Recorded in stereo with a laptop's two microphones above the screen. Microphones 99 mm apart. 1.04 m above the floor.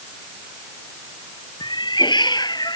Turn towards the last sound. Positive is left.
turn(degrees=45)  # may be behind; listen again after turning